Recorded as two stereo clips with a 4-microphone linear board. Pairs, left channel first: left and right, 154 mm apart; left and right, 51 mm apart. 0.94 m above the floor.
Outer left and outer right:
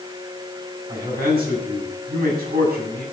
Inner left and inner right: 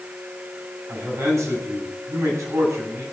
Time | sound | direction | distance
0.9 | a man speaking | 75° right (ahead or behind) | 8 m